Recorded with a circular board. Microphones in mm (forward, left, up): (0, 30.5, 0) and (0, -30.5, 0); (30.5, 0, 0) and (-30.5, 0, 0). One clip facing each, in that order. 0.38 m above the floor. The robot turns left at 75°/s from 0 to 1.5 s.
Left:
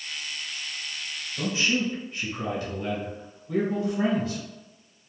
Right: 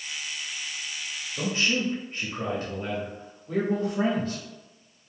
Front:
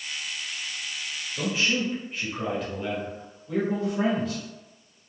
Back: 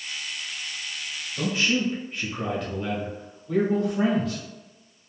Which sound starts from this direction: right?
A man speaking, at 1.4 s.